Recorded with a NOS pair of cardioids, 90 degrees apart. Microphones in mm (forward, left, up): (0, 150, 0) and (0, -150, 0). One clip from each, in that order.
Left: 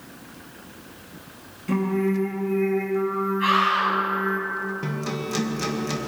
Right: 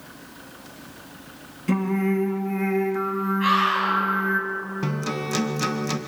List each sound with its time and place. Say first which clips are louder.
1.7 s singing: even; 35° right, 2.5 m
3.4 s a scream: even; straight ahead, 8.5 m
4.8 s a guitar: right 1 dB; 35° right, 1.8 m